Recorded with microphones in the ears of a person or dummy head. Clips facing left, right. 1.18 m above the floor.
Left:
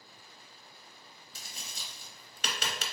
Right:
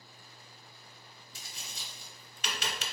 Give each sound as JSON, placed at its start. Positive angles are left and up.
{"t": 1.4, "sound": "tapping", "side_deg": 35, "distance_m": 0.7}